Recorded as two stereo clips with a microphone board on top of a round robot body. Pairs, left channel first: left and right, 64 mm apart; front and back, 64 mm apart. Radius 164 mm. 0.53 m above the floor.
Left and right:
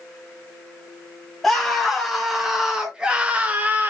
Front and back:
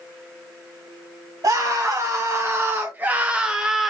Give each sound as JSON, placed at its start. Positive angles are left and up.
{"t": 1.4, "sound": "a scream", "azimuth_deg": 175, "distance_m": 1.8}